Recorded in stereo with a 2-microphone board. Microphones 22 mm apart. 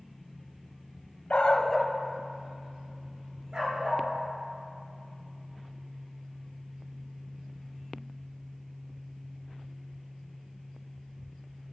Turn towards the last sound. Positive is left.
turn(degrees=-55)  # may be behind; listen again after turning